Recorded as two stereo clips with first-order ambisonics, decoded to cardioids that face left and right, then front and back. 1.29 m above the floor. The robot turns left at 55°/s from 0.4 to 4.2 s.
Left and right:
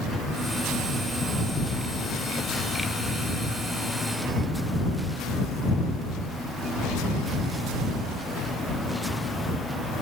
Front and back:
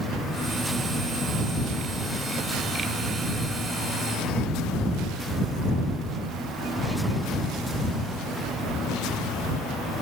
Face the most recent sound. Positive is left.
No sound to turn to.